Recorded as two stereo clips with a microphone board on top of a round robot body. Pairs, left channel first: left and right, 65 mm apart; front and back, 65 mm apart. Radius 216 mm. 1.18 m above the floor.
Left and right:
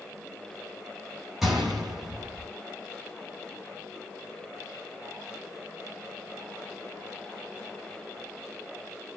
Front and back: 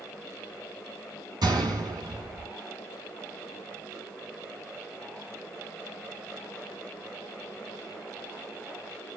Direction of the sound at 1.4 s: 175° right.